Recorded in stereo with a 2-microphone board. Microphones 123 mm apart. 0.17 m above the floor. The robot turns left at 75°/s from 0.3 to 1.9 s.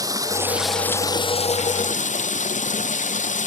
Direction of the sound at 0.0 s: 150° right.